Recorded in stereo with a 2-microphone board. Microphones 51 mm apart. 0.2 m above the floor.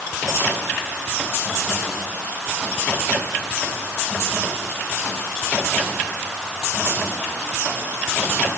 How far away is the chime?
I don't hear a chime.